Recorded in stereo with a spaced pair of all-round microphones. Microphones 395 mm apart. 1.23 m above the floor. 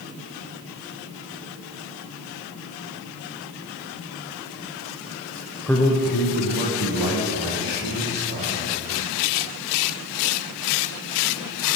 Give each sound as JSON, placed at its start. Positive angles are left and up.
{"t": 5.7, "sound": "a man speaking", "side_deg": -5, "distance_m": 0.5}